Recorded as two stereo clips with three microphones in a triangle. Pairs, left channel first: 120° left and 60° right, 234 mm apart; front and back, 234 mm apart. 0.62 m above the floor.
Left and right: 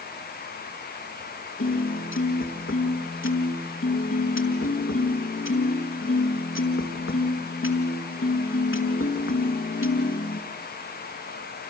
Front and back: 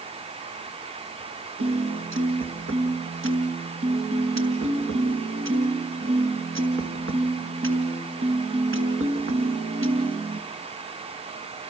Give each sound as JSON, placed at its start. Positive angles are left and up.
{"t": 1.6, "sound": "a piano", "azimuth_deg": 150, "distance_m": 4.5}